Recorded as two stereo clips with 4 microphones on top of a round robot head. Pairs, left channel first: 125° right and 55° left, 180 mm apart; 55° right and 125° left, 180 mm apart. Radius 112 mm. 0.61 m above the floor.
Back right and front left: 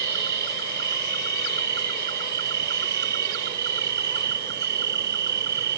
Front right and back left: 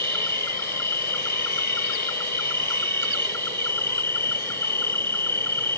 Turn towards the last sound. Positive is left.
turn(degrees=25)